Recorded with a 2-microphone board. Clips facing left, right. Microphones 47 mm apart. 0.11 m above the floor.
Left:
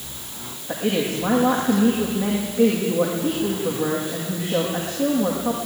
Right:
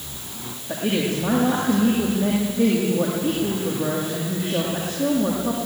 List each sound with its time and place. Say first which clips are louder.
0.7 s a woman speaking: even; 45° left (ahead or behind), 6.5 m